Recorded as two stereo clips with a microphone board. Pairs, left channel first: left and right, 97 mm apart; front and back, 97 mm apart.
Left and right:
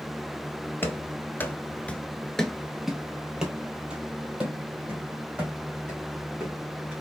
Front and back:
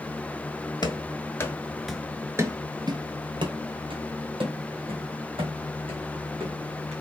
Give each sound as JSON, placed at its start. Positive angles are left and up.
{"t": 0.8, "sound": "running footsteps", "azimuth_deg": 30, "distance_m": 0.9}